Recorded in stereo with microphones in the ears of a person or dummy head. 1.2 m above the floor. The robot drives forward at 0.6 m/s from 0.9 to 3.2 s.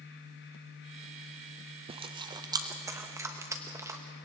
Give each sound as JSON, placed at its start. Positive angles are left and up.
{"t": 1.9, "sound": "chewing", "side_deg": -25, "distance_m": 0.6}